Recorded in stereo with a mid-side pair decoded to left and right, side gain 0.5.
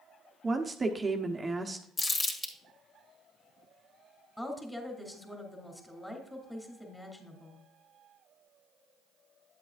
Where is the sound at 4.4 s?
5° left, 2.5 m.